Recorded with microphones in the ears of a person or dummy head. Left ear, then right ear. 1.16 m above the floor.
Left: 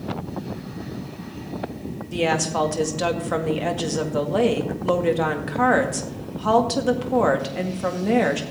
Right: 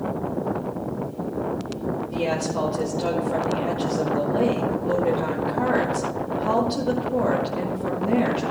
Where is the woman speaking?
55° left (ahead or behind), 2.0 m.